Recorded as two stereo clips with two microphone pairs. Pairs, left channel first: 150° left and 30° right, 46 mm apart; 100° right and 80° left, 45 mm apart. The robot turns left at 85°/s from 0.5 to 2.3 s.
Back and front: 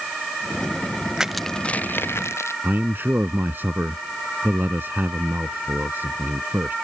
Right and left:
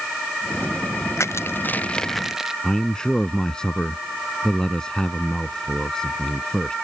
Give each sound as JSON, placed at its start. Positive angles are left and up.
{"t": 1.2, "sound": "crushing", "azimuth_deg": -105}
{"t": 2.6, "sound": "a man speaking", "azimuth_deg": -30}